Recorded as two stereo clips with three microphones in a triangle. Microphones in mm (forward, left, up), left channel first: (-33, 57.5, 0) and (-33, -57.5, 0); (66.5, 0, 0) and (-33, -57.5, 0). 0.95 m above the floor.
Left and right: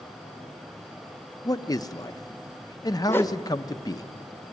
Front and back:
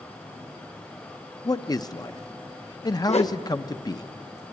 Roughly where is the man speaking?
Ahead left.